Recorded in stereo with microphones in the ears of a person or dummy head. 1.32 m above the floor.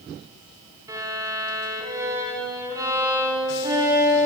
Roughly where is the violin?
Centre.